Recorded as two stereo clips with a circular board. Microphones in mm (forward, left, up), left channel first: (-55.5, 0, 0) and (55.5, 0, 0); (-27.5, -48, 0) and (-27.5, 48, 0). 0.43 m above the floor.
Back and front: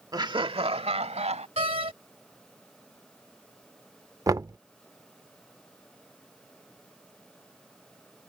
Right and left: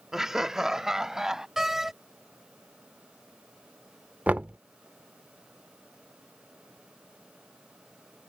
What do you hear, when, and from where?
0.1 s laughter: 10° left; by 1.5 s 5° left
1.6 s a door slam: 5° left
4.3 s knocking: 30° left